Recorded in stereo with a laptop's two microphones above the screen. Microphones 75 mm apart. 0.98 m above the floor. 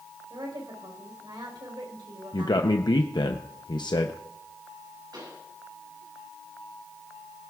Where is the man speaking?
75° left (ahead or behind), 0.7 m.